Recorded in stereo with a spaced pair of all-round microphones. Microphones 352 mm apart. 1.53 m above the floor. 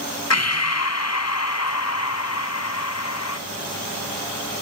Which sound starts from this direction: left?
Breathing, at 0.3 s.